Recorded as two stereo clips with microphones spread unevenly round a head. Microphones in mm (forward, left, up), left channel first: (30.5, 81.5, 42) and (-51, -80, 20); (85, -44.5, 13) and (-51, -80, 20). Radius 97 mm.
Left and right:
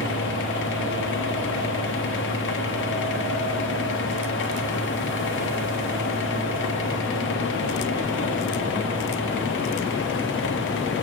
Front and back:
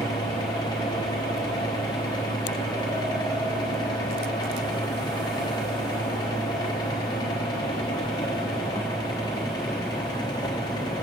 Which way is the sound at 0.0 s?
85° left.